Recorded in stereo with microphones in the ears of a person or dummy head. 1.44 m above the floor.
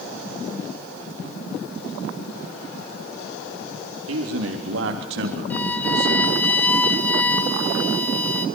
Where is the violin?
10° left (ahead or behind), 0.7 m.